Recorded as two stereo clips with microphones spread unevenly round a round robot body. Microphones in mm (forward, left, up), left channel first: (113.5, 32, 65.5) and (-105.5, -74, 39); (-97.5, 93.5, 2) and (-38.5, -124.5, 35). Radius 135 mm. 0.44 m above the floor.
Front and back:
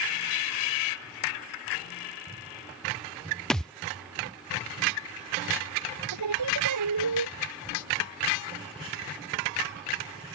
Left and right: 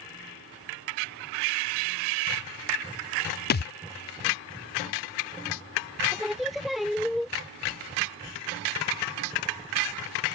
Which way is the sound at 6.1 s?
165° right.